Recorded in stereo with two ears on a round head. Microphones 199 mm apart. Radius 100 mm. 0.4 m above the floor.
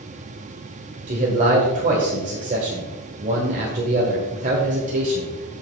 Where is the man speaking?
35° right (ahead or behind), 1.4 m.